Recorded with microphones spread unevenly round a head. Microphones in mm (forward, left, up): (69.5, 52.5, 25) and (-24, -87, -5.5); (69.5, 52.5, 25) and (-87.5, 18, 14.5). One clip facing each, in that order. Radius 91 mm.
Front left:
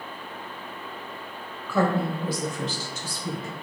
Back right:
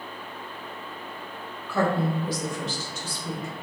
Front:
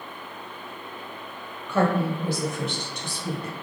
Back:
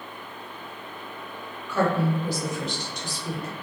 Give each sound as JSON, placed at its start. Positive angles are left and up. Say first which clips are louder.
{"t": 1.7, "sound": "a woman speaking", "louder": "front left 1 dB, front 1 dB", "azimuth_deg": 50, "distance_m": 1.2}